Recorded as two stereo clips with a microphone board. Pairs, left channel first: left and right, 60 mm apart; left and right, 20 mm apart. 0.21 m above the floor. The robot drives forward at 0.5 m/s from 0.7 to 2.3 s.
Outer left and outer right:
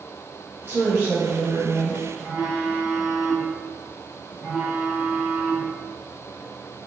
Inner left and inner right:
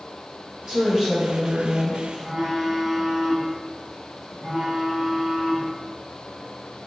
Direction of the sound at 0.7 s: 30° right (ahead or behind).